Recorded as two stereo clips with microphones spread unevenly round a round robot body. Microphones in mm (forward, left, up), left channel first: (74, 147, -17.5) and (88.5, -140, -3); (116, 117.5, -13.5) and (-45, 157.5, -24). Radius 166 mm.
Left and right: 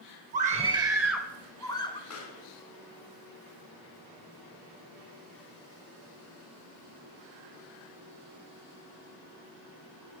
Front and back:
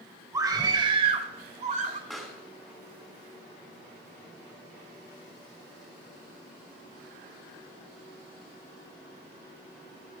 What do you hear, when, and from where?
0.3 s a scream: 135° right, 1.1 m; by 2.0 s 160° left, 1.3 m
2.1 s a pop: 75° left, 4 m